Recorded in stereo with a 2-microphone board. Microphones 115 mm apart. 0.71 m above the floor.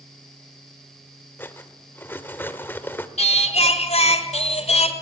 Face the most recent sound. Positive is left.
turn(degrees=65)  # may be behind; listen again after turning